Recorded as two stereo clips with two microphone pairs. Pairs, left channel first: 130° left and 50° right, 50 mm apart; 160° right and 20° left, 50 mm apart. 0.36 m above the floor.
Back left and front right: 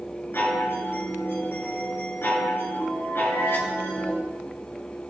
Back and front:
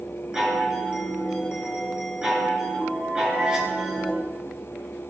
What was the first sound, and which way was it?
A chime, 95° left.